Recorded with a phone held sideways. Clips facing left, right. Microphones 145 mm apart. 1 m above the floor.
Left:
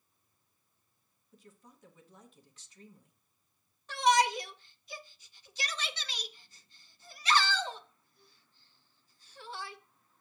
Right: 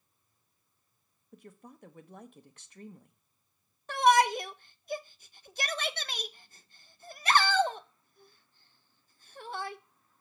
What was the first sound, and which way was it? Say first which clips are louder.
A woman speaking: right 7 dB; 65° right (ahead or behind).